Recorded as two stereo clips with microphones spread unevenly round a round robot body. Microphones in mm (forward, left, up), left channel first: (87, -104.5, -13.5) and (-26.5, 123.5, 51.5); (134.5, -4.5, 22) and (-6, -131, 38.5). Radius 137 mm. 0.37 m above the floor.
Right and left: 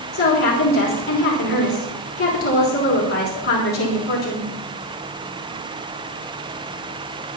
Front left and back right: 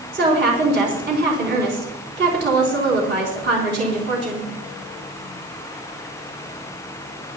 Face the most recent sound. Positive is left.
turn(degrees=-115)